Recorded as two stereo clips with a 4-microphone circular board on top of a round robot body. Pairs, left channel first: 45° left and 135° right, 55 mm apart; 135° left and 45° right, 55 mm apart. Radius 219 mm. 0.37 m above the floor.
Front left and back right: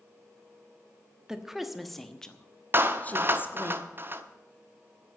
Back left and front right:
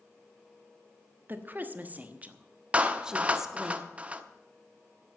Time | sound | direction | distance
1.3 | a woman speaking | 60° right | 1.6 m
2.7 | a clap | 105° right | 1.2 m